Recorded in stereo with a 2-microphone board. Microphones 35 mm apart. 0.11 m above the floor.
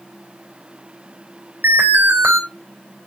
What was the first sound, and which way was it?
An alarm, 75° right (ahead or behind).